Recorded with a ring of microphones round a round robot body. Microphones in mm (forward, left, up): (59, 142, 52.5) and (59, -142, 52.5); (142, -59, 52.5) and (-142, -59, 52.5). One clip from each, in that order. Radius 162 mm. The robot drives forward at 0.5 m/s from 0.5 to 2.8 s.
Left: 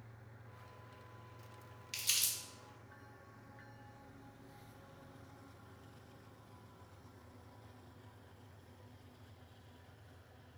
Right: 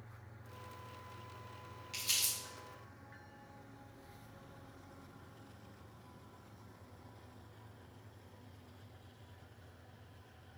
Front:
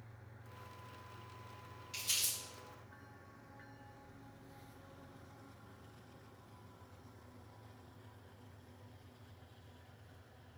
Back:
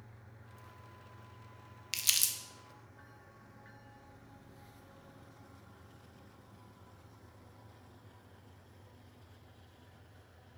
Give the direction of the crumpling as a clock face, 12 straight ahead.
7 o'clock.